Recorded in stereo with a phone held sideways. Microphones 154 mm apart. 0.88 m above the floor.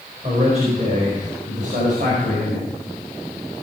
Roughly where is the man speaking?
Right.